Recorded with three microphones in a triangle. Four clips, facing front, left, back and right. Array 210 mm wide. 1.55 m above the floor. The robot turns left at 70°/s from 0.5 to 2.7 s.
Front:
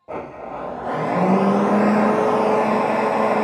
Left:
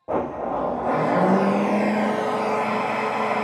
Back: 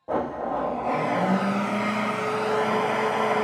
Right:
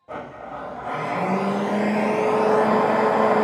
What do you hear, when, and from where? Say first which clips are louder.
0.1 s a blender: left 9 dB, back 4 dB; 100° left, 0.5 m; by 3.4 s 55° right, 0.5 m